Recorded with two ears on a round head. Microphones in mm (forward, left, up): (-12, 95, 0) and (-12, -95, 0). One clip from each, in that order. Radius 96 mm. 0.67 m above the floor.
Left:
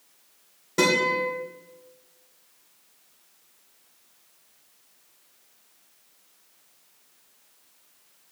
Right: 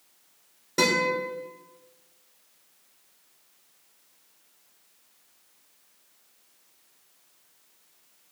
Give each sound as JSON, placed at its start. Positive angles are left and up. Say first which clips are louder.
{"t": 0.8, "sound": "a guitar", "louder": "left 2 dB", "side_deg": -15, "distance_m": 2.5}